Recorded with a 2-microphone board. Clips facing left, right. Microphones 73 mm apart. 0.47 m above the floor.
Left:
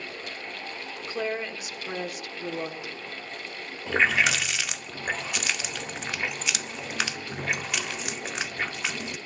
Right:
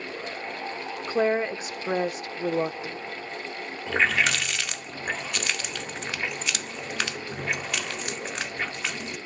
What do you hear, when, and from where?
1.1 s a woman speaking: 35° right (ahead or behind), 1.1 m
3.9 s a running tap: 5° left (ahead or behind), 0.5 m